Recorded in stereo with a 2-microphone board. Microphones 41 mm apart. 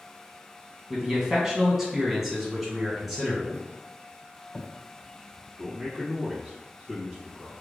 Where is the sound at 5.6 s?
15° right (ahead or behind), 1.8 m.